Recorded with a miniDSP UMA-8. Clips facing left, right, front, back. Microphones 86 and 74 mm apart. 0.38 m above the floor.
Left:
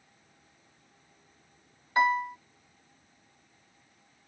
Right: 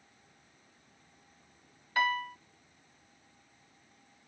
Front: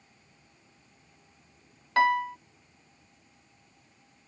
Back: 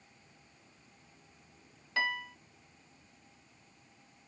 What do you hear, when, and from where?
2.0 s a piano: 25° left